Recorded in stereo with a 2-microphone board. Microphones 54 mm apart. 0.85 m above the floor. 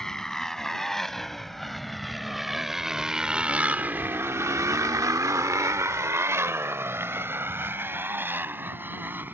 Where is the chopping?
No chopping in this recording.